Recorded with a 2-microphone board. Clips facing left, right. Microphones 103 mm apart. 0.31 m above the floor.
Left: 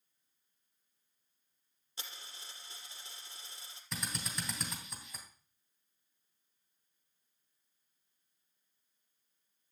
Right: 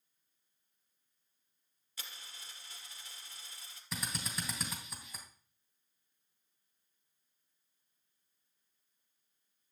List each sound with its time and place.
2.0 s a dropped coin: 30° left (ahead or behind), 2.5 m
3.9 s a drill: 5° right (ahead or behind), 3 m